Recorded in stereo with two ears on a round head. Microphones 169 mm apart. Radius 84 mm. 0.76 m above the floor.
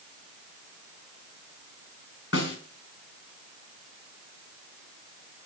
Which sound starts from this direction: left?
A snare drum, at 2.3 s.